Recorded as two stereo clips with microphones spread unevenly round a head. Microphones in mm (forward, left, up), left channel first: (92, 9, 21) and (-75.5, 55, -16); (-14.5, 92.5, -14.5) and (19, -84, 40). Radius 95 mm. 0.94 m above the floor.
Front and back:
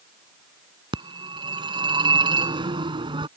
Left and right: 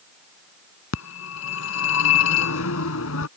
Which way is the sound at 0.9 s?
100° left.